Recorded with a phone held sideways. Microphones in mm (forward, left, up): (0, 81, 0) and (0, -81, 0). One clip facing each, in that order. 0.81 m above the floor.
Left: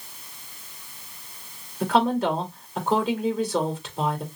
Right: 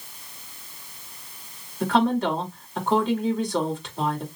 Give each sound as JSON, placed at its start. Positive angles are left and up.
{"t": 1.8, "sound": "a woman speaking", "side_deg": 5, "distance_m": 3.0}